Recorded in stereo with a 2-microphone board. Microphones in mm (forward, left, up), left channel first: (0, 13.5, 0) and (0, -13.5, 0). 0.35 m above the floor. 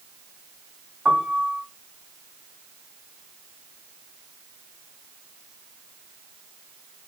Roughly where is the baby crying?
No baby crying in this recording.